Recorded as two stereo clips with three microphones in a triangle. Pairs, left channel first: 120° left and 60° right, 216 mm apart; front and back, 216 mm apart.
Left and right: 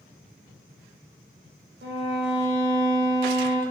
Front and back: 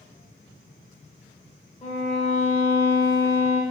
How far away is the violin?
About 0.7 m.